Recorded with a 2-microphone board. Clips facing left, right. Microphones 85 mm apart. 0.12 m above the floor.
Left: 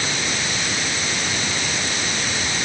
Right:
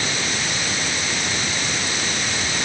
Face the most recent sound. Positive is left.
No sound to turn to.